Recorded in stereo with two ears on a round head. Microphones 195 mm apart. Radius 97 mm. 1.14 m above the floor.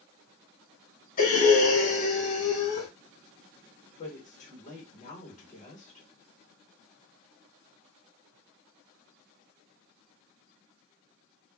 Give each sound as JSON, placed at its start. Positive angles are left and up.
{"t": 1.2, "sound": "breathing", "side_deg": 40, "distance_m": 1.1}
{"t": 4.0, "sound": "a woman speaking", "side_deg": 35, "distance_m": 1.4}